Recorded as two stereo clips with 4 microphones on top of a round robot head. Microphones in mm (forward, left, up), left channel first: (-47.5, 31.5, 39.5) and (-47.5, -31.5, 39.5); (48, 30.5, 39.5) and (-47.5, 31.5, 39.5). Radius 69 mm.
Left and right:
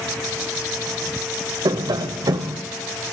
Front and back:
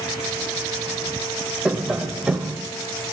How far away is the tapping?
About 1.0 m.